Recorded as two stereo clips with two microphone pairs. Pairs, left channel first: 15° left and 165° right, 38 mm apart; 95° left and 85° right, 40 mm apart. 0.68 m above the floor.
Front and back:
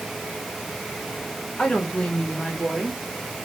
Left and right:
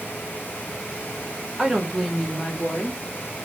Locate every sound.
1.6 s a woman speaking: 15° right, 1.1 m; by 3.0 s 85° left, 1.0 m